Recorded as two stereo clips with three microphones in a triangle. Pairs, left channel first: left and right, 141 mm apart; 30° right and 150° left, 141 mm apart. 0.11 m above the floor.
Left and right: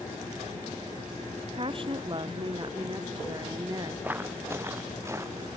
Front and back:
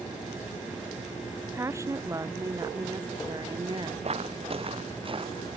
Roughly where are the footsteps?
Behind.